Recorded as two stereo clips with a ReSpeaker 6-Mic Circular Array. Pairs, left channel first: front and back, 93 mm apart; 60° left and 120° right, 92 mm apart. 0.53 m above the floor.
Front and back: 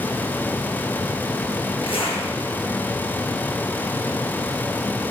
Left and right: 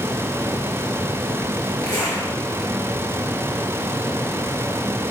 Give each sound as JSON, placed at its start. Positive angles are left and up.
{"t": 1.8, "sound": "a zipper", "azimuth_deg": 15, "distance_m": 5.5}